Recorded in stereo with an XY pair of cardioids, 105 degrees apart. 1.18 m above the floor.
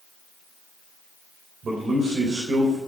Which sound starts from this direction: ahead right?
A man speaking, at 1.6 s.